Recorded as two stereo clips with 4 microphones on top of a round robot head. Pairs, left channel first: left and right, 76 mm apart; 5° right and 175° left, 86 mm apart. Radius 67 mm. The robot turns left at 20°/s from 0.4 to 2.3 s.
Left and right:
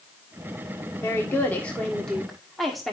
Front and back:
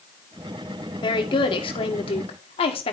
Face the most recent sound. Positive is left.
turn(degrees=0)